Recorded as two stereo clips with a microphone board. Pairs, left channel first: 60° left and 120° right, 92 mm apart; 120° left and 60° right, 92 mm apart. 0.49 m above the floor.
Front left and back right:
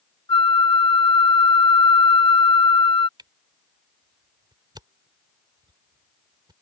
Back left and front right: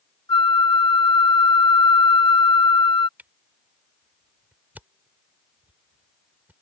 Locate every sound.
0.3 s a flute: 85° left
3.2 s a camera shutter: 125° right